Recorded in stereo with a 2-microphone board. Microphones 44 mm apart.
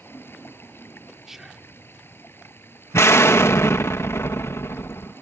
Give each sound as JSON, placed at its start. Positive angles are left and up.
{"t": 0.0, "sound": "running water", "side_deg": 50}
{"t": 1.3, "sound": "whispering", "side_deg": -5}
{"t": 2.9, "sound": "an explosion", "side_deg": 70}